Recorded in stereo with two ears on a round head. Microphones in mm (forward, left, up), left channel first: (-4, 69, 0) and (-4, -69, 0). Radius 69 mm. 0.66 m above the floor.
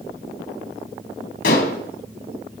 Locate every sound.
1.4 s dishes clattering: 65° left (ahead or behind), 3.5 m